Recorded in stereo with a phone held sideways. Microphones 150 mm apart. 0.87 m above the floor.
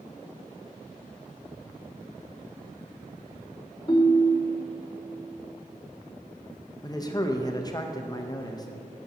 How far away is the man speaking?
About 0.5 m.